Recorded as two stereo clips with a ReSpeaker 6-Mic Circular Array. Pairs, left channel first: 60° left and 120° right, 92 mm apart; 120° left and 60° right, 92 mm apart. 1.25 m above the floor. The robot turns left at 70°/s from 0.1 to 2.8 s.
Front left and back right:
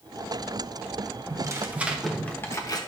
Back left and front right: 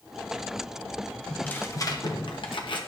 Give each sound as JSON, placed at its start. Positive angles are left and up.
{"t": 1.3, "sound": "tearing paper", "azimuth_deg": -155, "distance_m": 1.0}